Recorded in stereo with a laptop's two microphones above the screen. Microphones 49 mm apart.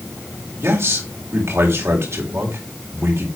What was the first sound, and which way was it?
A man speaking, 60° right (ahead or behind).